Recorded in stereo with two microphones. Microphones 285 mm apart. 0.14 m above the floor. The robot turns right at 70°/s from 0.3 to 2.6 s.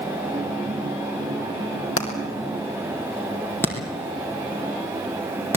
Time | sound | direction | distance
2.0 | hammering | 50° left (ahead or behind) | 3.5 m